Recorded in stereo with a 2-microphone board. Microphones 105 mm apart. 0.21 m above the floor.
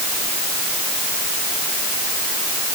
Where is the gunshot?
No gunshot in this recording.